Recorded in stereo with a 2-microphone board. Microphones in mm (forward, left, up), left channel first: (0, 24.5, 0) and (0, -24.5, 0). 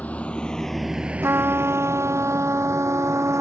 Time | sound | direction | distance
0.0 | a vehicle | 35° left (ahead or behind) | ?
1.2 | a trumpet | 60° right (ahead or behind) | ?